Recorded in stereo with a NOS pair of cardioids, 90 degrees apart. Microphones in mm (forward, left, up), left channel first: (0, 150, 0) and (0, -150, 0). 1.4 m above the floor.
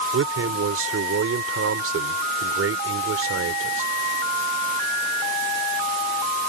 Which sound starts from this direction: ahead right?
A man speaking, at 0.1 s.